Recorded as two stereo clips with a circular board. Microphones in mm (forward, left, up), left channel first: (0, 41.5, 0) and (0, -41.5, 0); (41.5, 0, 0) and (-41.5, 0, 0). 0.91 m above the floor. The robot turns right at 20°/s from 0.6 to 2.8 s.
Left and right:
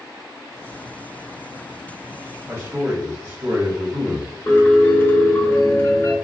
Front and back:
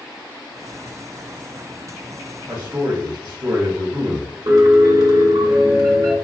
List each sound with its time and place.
2.5 s a man speaking: 135° right, 1.3 m; by 4.4 s 125° right, 1.3 m
4.5 s a piano: 150° left, 1.0 m